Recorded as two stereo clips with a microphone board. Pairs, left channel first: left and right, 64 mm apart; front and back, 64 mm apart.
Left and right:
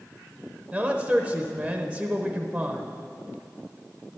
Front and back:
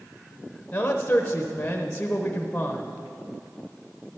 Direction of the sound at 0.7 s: 35° right.